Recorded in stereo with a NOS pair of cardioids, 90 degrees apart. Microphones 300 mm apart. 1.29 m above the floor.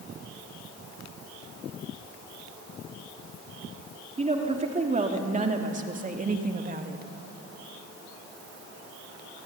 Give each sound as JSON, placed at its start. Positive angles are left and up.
{"t": 4.2, "sound": "a woman speaking", "azimuth_deg": -20, "distance_m": 3.5}